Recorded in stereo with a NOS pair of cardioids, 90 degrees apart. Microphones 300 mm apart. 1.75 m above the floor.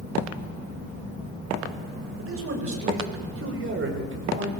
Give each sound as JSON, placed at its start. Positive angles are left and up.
{"t": 2.2, "sound": "a man speaking", "azimuth_deg": -45, "distance_m": 8.5}